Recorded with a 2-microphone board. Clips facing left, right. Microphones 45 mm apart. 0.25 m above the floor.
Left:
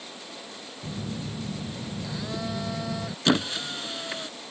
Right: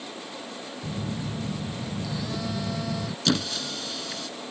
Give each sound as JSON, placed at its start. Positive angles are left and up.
{"t": 0.8, "sound": "a phone buzzing", "side_deg": 10}
{"t": 3.2, "sound": "a squeak", "side_deg": 30}